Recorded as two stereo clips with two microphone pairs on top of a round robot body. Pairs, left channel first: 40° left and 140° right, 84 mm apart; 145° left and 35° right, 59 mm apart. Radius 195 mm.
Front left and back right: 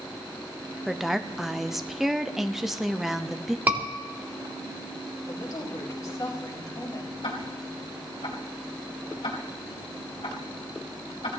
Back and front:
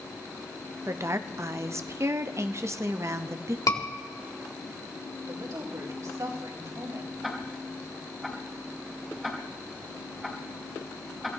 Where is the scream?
155° left, 4 m.